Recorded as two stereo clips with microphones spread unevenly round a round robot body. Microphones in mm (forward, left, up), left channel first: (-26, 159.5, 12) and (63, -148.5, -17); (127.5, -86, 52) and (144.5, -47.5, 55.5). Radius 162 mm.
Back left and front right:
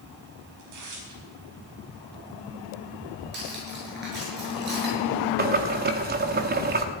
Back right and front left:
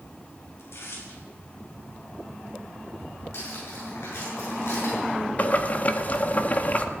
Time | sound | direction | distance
0.6 | tearing paper | 110° right | 5 m
3.3 | cutlery clinking | 135° right | 7.5 m
5.4 | boiling | 115° right | 1.2 m